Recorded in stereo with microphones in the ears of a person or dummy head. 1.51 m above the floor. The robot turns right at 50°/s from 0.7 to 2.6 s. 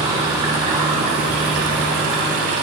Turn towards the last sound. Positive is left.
turn(degrees=-65)